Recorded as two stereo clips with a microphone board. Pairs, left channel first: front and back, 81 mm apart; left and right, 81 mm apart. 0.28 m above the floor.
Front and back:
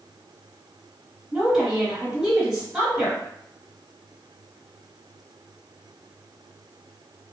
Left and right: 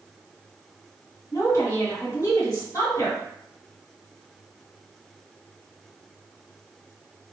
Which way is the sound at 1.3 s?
105° left.